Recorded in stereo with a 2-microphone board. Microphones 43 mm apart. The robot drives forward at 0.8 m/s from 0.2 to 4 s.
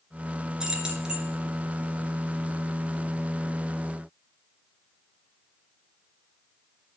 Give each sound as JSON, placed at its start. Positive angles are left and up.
{"t": 0.6, "sound": "keys jangling", "side_deg": -15, "distance_m": 2.0}